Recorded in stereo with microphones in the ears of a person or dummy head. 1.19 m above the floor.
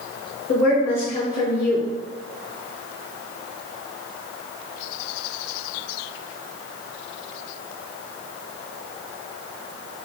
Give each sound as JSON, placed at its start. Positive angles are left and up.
{"t": 0.5, "sound": "a woman speaking", "side_deg": 55, "distance_m": 1.5}